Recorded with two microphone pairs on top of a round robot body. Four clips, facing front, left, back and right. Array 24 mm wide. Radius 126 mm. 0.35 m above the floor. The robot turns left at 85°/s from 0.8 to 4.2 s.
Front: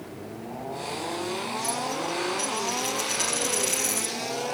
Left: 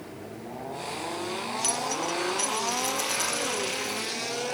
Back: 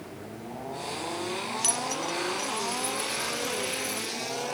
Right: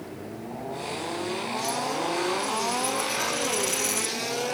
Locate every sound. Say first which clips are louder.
1.6 s a dropped coin: right 1 dB, even; 155° left, 1.5 m; by 4.2 s 65° right, 1.5 m